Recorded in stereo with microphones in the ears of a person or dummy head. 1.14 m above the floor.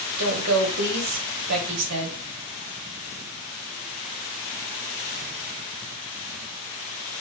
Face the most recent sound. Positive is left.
turn(degrees=-80)